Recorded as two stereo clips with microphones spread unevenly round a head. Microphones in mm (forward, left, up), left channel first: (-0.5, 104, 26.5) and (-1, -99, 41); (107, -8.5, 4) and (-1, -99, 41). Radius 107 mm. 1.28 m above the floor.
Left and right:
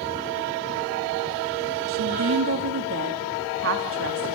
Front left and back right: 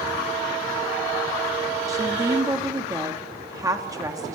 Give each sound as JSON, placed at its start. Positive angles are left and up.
{"t": 1.9, "sound": "a woman speaking", "azimuth_deg": -75, "distance_m": 3.0}